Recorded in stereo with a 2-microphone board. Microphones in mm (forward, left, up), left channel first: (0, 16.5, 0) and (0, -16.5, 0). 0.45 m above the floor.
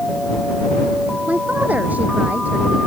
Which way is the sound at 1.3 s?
55° right (ahead or behind).